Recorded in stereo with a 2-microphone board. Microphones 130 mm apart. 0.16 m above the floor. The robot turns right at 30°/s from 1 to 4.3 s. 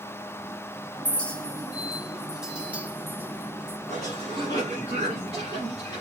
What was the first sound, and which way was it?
A clink, 10° left (ahead or behind).